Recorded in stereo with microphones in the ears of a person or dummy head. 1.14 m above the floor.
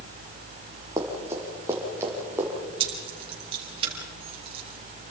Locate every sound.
1.0 s running footsteps: 20° right (ahead or behind), 4 m; by 2.5 s 15° right (ahead or behind), 5 m
2.8 s keys jangling: 35° right (ahead or behind), 4.5 m